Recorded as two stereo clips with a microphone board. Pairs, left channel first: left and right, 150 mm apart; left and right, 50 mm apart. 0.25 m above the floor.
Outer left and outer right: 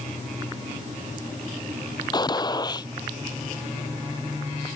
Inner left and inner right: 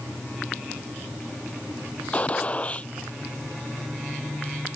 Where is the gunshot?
30° left (ahead or behind).